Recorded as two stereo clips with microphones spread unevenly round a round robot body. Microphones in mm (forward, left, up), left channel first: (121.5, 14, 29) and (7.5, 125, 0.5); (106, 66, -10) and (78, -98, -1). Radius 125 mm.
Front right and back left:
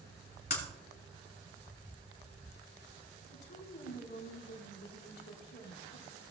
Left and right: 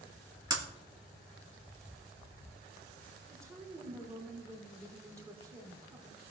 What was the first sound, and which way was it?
Breaking glass, 30° right.